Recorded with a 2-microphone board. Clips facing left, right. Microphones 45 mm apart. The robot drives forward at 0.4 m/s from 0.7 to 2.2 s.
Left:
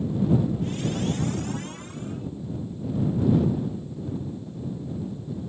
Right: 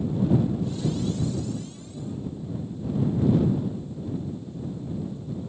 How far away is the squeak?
I don't hear a squeak.